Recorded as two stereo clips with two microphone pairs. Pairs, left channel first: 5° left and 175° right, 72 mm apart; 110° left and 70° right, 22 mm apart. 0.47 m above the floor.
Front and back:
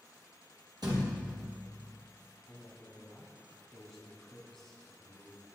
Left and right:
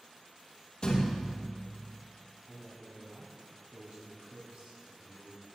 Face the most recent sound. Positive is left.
turn(degrees=-80)